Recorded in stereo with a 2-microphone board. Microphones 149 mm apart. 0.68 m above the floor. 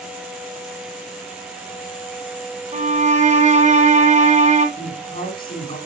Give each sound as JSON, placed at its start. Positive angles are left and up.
{"t": 2.7, "sound": "a violin", "side_deg": -55, "distance_m": 1.1}
{"t": 4.8, "sound": "a woman speaking", "side_deg": 80, "distance_m": 5.0}